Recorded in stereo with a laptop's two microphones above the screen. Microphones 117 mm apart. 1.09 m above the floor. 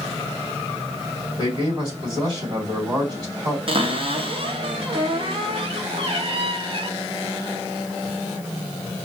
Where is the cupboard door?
50° right (ahead or behind), 0.8 m.